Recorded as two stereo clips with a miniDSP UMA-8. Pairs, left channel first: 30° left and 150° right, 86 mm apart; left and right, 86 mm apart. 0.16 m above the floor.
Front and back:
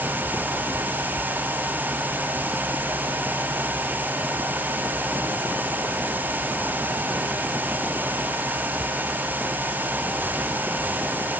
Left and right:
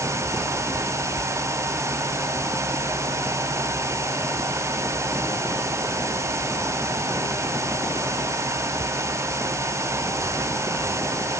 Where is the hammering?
No hammering in this recording.